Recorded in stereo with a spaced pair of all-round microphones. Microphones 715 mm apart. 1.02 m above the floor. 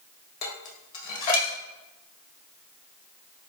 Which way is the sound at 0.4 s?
55° left (ahead or behind).